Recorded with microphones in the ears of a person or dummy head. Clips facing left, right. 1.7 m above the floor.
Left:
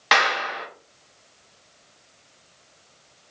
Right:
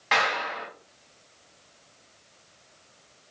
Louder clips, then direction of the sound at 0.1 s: Left 3 dB; 70° left (ahead or behind).